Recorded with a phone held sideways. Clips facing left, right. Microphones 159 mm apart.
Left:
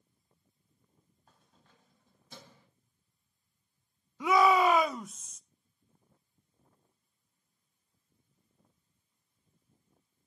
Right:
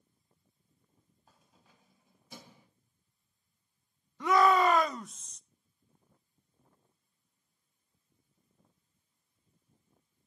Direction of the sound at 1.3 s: 5° right (ahead or behind).